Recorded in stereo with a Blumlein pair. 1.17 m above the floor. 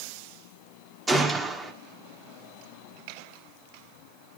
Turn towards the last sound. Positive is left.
turn(degrees=-15)